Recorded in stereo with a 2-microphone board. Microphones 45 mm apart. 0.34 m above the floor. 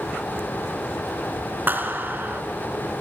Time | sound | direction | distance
1.7 | a clap | 45° right (ahead or behind) | 3.5 m